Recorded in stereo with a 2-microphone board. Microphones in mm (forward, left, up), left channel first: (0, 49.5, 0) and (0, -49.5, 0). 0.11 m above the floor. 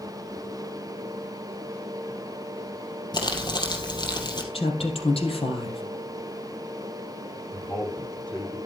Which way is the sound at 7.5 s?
15° left (ahead or behind).